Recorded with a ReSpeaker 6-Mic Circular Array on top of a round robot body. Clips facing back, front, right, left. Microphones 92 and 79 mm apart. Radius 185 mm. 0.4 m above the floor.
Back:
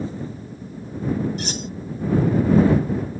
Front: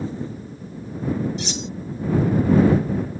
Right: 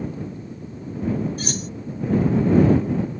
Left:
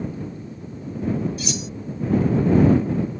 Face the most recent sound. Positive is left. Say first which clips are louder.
# even, even
turn(degrees=-135)